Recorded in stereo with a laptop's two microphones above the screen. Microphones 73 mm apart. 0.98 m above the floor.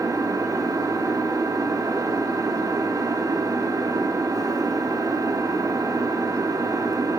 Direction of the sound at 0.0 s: 50° right (ahead or behind).